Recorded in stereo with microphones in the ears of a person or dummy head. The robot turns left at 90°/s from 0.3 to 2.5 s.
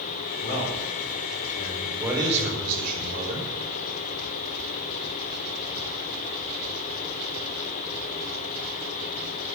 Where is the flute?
I don't hear a flute.